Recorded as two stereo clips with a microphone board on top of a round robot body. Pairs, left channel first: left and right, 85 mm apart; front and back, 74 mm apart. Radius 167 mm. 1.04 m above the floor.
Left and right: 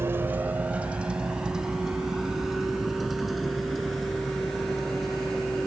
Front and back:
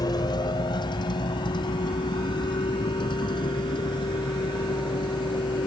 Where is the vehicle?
30° right; by 5.7 s straight ahead.